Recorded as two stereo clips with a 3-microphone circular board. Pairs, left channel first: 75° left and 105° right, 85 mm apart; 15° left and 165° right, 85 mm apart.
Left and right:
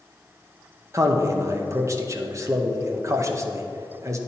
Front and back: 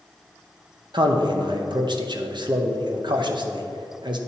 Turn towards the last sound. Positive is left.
turn(degrees=-150)